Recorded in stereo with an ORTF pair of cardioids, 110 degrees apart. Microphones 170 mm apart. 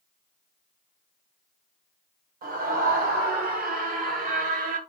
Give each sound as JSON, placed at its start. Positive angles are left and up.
{"t": 2.4, "sound": "a scream", "azimuth_deg": -65, "distance_m": 5.0}